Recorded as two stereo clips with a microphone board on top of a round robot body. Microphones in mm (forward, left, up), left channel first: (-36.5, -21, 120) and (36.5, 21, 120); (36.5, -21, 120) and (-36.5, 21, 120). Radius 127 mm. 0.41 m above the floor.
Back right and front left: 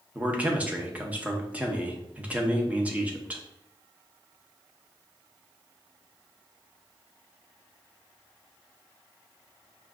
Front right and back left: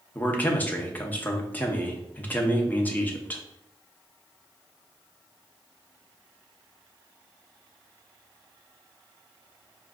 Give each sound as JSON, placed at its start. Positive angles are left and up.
{"t": 0.1, "sound": "a man speaking", "azimuth_deg": -5, "distance_m": 0.9}